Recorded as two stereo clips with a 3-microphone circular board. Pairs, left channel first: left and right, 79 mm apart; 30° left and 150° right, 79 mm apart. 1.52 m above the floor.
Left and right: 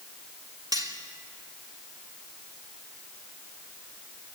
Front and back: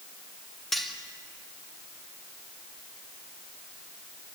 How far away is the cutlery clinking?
About 2.5 m.